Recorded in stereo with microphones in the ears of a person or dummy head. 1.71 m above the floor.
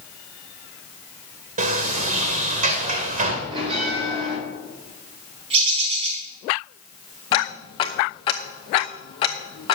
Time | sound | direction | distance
1.6 | a sliding door | 35° right (ahead or behind) | 1.8 m
3.5 | a bell | 30° right (ahead or behind) | 5.5 m
5.5 | a bird | 35° right (ahead or behind) | 5 m
7.3 | ticking | 30° left (ahead or behind) | 1.1 m